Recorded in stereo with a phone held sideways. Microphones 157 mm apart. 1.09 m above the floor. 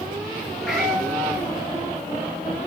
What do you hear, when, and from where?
0.6 s a cat meowing: centre (ahead or behind), 5 m